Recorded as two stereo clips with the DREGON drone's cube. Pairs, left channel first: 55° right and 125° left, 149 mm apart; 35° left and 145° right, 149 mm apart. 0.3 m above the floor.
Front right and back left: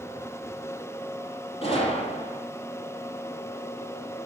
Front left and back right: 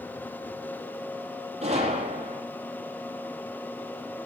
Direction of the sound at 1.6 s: 105° right.